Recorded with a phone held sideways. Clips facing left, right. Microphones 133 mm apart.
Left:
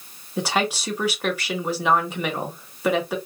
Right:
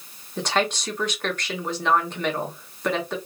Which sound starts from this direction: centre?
A woman speaking, at 0.4 s.